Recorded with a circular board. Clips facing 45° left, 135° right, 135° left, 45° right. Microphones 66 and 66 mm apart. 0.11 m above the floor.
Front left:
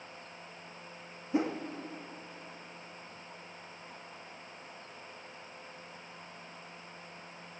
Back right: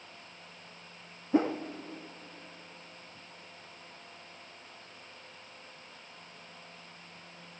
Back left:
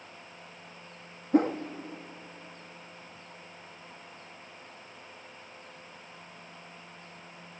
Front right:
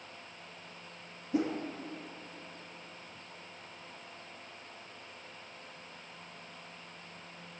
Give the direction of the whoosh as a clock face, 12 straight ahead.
6 o'clock.